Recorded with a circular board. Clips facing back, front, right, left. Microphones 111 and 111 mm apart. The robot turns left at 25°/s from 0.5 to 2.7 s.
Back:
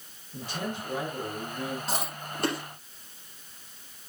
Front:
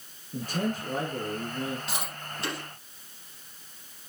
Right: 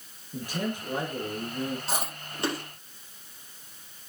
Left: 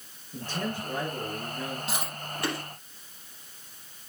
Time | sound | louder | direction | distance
0.3 | a man speaking | front 4 dB, right 1 dB | 15° right | 2 m
1.9 | chewing | back 3 dB, right 1 dB | 140° right | 5 m